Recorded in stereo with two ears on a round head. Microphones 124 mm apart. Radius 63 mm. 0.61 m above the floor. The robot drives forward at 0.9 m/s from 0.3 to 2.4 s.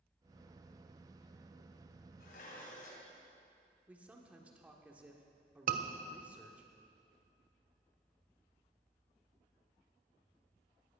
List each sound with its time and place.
2.2 s dishes clattering: 70° left (ahead or behind), 3 m
3.9 s a man speaking: 10° right (ahead or behind), 1.4 m
5.7 s a scream: 65° right (ahead or behind), 1.4 m